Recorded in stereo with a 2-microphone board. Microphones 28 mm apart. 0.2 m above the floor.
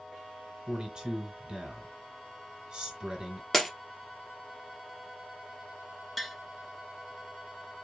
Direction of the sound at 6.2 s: 5° left (ahead or behind).